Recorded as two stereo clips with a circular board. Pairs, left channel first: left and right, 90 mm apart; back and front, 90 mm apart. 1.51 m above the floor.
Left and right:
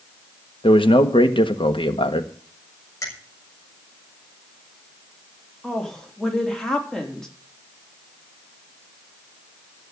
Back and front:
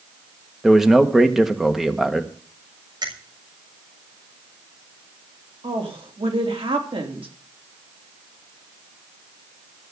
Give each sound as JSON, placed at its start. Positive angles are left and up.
{"t": 0.6, "sound": "a man speaking", "azimuth_deg": 85, "distance_m": 1.5}
{"t": 3.0, "sound": "a finger snap", "azimuth_deg": 40, "distance_m": 6.5}
{"t": 5.6, "sound": "a woman speaking", "azimuth_deg": 5, "distance_m": 3.5}